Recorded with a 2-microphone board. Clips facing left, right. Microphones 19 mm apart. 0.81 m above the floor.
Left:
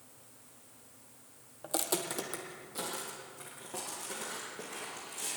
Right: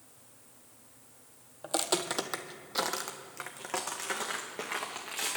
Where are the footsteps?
15° right (ahead or behind), 1.0 m; by 5.4 s 75° right (ahead or behind), 3.5 m.